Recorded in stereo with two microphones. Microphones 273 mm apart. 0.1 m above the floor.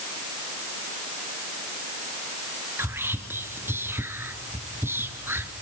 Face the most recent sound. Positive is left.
turn(degrees=-10)  # may be behind; listen again after turning